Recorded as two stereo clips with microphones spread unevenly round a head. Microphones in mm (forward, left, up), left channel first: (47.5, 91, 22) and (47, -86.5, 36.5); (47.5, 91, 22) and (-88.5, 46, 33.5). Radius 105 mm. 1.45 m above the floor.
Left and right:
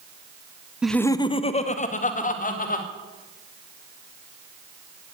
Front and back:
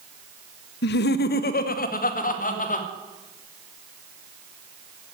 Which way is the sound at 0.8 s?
5° right.